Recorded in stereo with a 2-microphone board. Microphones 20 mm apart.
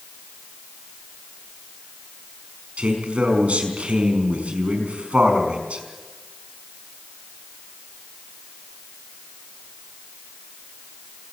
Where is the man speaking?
75° right (ahead or behind), 5 m.